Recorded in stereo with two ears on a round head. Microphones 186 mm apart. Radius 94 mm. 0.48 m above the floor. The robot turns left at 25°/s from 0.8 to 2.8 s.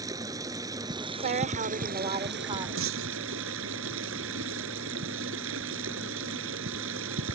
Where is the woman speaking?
110° right; by 2.7 s 145° right.